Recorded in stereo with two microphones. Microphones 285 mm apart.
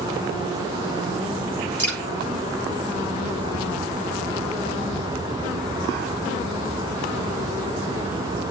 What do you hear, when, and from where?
1.8 s dripping: 5° left (ahead or behind), 8 m